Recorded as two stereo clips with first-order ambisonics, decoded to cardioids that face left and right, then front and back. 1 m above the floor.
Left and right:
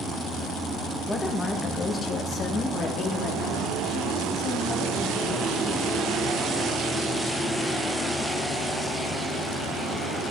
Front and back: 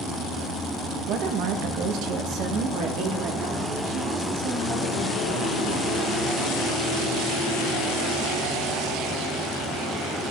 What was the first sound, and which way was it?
A woman speaking, 175° left.